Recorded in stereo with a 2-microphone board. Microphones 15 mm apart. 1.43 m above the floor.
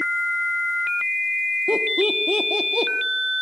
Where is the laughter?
55° right (ahead or behind), 1.3 m.